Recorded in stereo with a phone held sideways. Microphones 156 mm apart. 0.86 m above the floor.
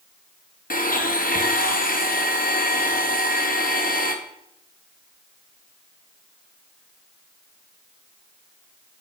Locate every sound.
0.7 s a blender: 60° left (ahead or behind), 0.9 m